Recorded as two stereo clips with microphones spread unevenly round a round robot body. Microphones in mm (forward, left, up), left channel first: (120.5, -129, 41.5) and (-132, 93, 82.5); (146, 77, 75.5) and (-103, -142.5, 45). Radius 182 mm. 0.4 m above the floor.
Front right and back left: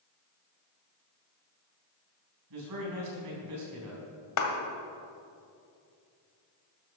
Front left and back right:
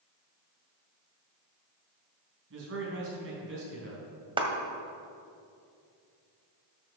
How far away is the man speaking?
About 4 m.